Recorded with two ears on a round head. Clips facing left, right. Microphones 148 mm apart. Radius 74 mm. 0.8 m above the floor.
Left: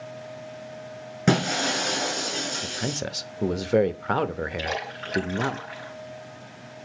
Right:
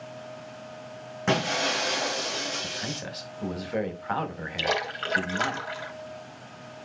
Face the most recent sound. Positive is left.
turn(degrees=-80)